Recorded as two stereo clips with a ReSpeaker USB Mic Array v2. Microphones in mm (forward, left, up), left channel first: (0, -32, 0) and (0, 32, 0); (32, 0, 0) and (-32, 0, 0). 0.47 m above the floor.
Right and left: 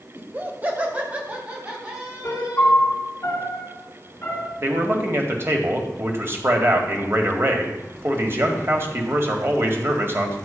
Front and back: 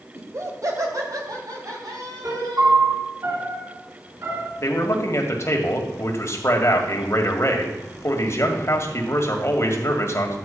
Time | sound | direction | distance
0.1 | laughter | 145° left | 1.8 m
2.2 | a piano | 145° right | 2.5 m
4.6 | a man speaking | 45° left | 2.0 m